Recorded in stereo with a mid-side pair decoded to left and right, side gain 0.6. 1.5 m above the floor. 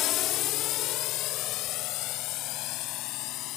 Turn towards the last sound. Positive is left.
turn(degrees=70)